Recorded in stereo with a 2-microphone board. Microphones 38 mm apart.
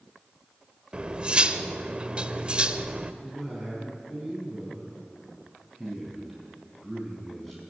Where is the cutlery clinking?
30° right (ahead or behind), 0.9 m.